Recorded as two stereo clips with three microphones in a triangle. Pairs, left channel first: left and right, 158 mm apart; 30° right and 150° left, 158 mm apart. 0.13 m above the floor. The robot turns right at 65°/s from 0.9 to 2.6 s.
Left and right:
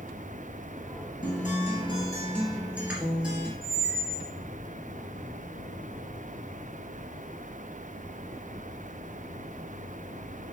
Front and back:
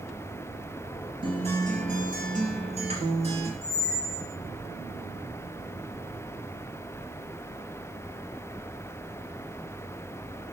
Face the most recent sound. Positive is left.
turn(degrees=-160)